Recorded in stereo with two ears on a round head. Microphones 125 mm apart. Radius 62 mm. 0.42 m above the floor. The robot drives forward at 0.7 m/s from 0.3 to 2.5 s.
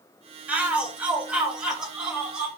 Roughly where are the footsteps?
I don't hear footsteps.